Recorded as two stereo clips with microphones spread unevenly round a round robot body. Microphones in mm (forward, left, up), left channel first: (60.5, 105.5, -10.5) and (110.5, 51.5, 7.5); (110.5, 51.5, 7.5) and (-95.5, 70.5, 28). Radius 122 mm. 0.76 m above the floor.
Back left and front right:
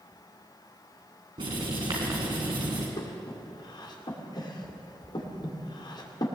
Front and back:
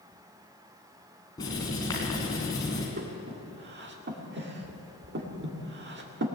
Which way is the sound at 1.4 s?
80° right.